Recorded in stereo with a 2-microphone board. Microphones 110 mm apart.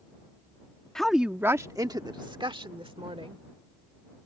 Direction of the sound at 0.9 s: 5° left (ahead or behind).